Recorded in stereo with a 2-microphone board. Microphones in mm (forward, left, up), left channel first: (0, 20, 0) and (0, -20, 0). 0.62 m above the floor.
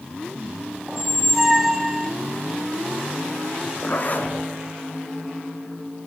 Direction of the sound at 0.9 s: 5° right (ahead or behind).